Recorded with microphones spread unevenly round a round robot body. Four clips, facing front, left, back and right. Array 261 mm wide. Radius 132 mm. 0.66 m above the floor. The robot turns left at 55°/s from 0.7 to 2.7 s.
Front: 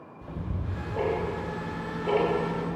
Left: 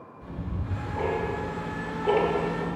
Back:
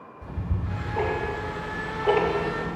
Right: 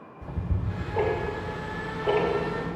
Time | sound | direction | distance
0.2 | ticking | 75° right | 1.3 m